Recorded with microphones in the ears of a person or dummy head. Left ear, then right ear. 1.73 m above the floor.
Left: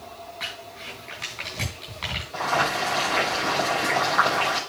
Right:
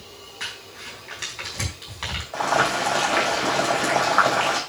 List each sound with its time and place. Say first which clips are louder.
0.4 s crumpling: right 1 dB; 5° right (ahead or behind), 5.5 m
2.3 s boiling: right 3 dB; 30° right (ahead or behind), 6 m